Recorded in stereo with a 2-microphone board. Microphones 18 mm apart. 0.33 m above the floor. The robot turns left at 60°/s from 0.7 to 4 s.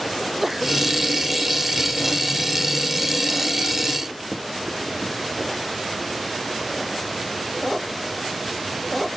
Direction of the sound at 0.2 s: 10° right (ahead or behind).